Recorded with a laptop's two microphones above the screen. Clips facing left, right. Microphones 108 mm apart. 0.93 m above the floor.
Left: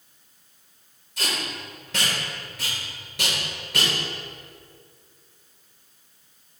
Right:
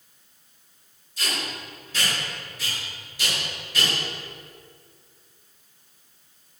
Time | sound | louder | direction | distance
1.2 | tape being pulled | left 1 dB | 80° left | 3.5 m